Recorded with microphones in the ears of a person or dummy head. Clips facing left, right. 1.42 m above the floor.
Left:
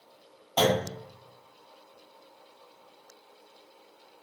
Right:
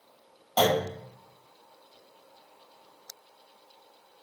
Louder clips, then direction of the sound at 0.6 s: Right 1 dB; 20° right (ahead or behind).